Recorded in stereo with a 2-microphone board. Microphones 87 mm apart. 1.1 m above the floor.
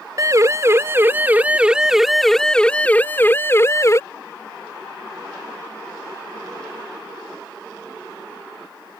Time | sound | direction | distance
0.2 | a siren | 40° right (ahead or behind) | ?